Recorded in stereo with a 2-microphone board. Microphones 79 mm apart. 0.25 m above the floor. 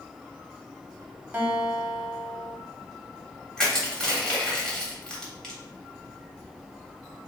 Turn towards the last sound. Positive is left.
turn(degrees=10)  # may be behind; listen again after turning